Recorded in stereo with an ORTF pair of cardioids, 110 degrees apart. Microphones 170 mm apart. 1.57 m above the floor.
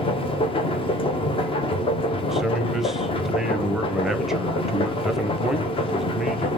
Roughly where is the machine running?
Ahead left.